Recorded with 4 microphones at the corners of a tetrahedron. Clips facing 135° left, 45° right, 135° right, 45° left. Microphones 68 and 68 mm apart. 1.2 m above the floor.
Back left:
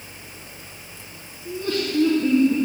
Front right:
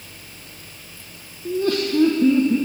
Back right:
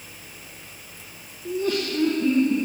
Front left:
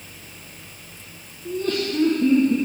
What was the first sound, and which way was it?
Laughter, 60° right.